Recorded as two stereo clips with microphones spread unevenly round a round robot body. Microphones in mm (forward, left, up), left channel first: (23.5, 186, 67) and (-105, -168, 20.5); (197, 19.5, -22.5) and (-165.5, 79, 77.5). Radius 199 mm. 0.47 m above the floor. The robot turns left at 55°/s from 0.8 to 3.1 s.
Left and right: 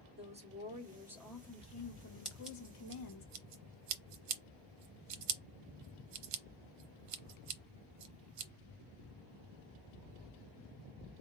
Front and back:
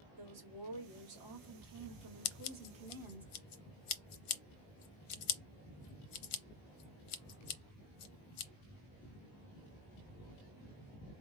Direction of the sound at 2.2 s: 10° right.